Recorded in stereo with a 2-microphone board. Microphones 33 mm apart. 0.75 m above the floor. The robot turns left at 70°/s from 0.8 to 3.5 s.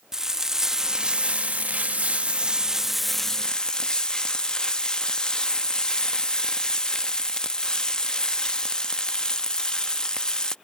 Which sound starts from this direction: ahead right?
Frying, at 0.1 s.